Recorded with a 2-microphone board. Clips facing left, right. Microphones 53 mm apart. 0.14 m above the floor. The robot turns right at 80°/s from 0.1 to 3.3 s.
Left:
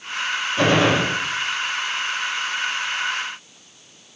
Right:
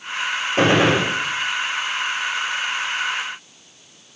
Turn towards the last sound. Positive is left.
turn(degrees=160)